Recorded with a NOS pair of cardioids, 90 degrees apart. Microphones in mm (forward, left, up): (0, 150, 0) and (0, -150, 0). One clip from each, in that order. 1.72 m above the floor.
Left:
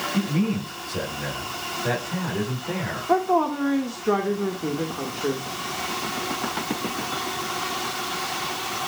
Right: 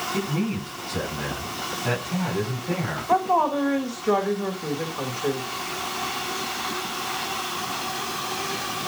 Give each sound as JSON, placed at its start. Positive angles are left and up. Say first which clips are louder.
{"t": 0.1, "sound": "a man speaking", "louder": "left 1 dB", "azimuth_deg": 0, "distance_m": 8.0}
{"t": 3.1, "sound": "a woman speaking", "louder": "right 1 dB", "azimuth_deg": 5, "distance_m": 2.0}